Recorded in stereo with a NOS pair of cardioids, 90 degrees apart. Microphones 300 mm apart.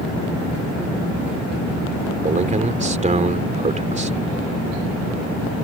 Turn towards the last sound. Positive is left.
turn(degrees=-25)